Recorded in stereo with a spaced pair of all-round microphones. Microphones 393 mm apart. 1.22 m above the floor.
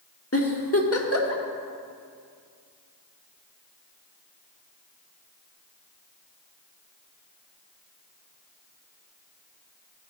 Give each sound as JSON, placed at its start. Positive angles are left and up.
{"t": 0.3, "sound": "a giggle", "side_deg": 35, "distance_m": 0.9}